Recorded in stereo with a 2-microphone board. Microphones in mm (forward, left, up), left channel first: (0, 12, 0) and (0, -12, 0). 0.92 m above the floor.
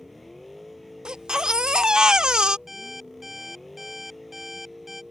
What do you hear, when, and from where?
0.0 s a vehicle: 5° left (ahead or behind)
1.1 s a baby crying: 35° right (ahead or behind)
2.7 s an alarm clock: 10° right (ahead or behind)